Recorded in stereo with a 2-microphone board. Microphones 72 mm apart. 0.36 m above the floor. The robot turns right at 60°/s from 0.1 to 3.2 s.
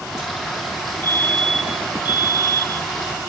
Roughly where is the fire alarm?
Behind left.